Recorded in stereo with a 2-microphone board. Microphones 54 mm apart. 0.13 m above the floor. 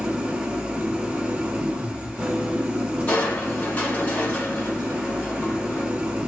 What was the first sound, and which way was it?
An engine running, 15° right (ahead or behind).